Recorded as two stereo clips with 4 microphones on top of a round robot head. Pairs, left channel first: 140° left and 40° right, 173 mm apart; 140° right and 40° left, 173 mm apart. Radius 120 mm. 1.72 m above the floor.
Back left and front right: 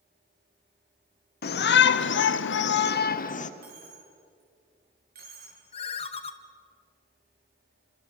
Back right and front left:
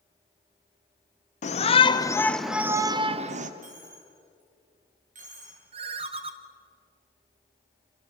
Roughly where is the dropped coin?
Ahead.